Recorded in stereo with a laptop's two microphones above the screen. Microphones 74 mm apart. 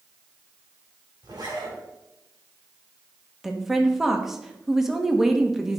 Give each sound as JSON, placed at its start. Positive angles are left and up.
{"t": 1.2, "sound": "a zipper", "side_deg": -70, "distance_m": 2.5}
{"t": 3.4, "sound": "a woman speaking", "side_deg": -5, "distance_m": 1.2}